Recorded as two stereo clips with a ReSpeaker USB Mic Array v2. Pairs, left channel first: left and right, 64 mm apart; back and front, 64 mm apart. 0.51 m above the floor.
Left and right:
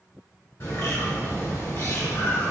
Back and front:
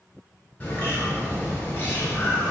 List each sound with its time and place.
0.6 s a bird: 125° left, 1.8 m